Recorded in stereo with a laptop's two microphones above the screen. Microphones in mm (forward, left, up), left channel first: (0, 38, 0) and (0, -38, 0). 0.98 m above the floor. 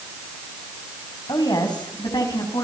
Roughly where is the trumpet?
No trumpet in this recording.